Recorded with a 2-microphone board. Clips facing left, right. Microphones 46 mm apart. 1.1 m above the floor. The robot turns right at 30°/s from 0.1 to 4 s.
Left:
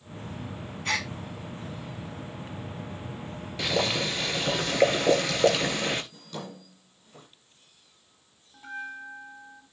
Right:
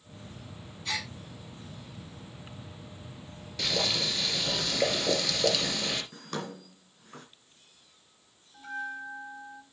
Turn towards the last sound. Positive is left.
turn(degrees=25)  # may be behind; listen again after turning